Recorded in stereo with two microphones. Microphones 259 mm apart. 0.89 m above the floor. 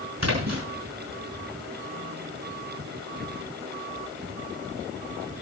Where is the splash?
90° right, 6 m.